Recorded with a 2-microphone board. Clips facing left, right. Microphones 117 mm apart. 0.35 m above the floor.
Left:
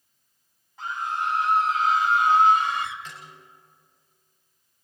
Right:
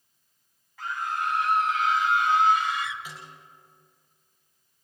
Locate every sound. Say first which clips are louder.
0.8 s a scream: left 1 dB; 25° left (ahead or behind), 3 m; by 3.0 s 55° left (ahead or behind), 2.0 m
3.0 s a snare drum: even; 10° right (ahead or behind), 8 m